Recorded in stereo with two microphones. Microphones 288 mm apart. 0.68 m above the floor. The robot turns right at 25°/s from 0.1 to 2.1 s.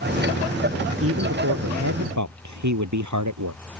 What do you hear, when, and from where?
1.0 s a man speaking: 50° right (ahead or behind); by 3.6 s 75° right (ahead or behind)